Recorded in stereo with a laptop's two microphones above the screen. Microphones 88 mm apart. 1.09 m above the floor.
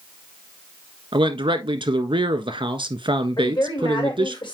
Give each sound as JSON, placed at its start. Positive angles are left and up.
{"t": 1.1, "sound": "a man speaking", "side_deg": -65, "distance_m": 1.4}
{"t": 3.4, "sound": "a woman speaking", "side_deg": 65, "distance_m": 4.0}